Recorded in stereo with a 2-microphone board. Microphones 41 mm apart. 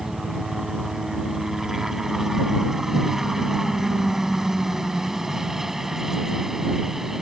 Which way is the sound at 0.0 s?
15° right (ahead or behind).